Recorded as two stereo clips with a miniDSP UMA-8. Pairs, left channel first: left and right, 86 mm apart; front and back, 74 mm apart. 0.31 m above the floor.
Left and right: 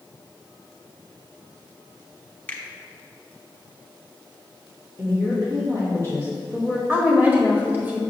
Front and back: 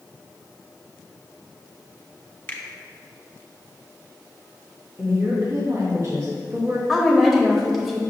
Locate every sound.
2.5 s a finger snap: 35° left, 0.9 m
5.0 s a woman speaking: 135° right, 1.7 m
6.9 s a woman speaking: 85° right, 1.0 m